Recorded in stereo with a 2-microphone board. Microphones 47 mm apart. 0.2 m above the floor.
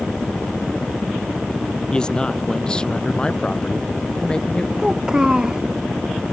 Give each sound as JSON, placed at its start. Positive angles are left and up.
{"t": 1.9, "sound": "a man speaking", "side_deg": 20}
{"t": 4.8, "sound": "a child speaking", "side_deg": -15}